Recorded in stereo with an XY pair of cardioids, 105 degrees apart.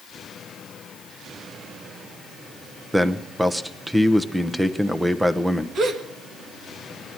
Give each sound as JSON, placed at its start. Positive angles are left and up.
{"t": 2.9, "sound": "a man speaking", "azimuth_deg": -10, "distance_m": 1.0}
{"t": 5.8, "sound": "a gasp", "azimuth_deg": -55, "distance_m": 1.7}